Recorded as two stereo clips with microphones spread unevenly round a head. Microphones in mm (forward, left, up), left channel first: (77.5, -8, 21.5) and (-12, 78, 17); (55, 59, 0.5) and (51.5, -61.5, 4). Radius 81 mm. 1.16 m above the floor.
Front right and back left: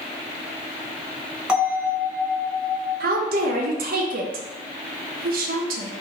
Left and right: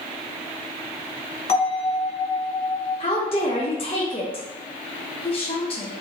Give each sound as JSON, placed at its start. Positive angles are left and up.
{"t": 1.5, "sound": "a bell", "azimuth_deg": 55, "distance_m": 1.7}
{"t": 3.0, "sound": "a woman speaking", "azimuth_deg": 145, "distance_m": 0.6}